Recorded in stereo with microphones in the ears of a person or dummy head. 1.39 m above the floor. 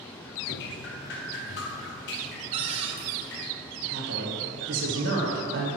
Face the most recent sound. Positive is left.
turn(degrees=-55)  # may be behind; listen again after turning